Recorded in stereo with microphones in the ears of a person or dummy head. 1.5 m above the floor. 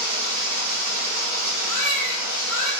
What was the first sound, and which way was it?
Running water, 65° right (ahead or behind).